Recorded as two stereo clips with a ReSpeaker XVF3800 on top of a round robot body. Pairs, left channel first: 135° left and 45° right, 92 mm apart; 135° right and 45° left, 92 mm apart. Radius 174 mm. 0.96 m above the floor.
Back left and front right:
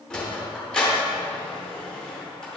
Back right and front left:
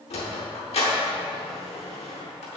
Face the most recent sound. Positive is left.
turn(degrees=-145)